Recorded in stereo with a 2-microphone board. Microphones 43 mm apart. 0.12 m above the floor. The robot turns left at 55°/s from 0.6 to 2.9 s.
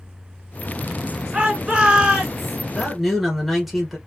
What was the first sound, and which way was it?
A shout, 25° right (ahead or behind).